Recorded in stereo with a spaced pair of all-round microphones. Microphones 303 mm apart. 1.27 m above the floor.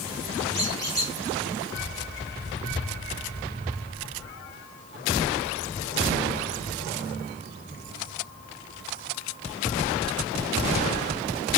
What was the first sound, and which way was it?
A squeak, 10° left (ahead or behind).